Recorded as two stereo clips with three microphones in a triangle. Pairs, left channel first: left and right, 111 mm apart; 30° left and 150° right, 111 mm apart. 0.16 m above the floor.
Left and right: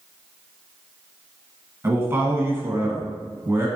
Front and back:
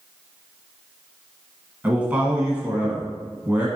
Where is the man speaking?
95° right, 1.1 m.